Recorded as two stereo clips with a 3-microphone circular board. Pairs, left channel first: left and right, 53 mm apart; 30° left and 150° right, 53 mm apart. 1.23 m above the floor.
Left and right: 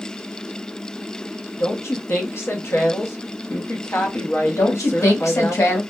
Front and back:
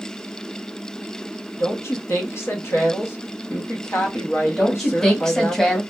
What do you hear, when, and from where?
1.6 s a woman speaking: 60° left, 0.9 m
4.6 s a woman speaking: 110° left, 1.1 m